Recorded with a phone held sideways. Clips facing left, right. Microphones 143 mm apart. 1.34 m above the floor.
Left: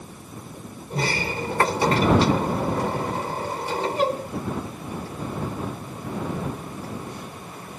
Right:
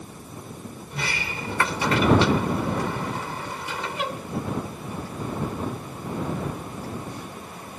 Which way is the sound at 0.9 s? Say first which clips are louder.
Left 7 dB; 40° left (ahead or behind).